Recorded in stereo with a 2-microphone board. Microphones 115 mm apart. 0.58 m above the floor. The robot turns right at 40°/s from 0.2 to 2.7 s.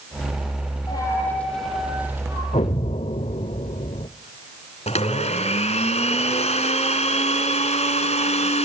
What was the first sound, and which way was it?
A dropped coin, 145° left.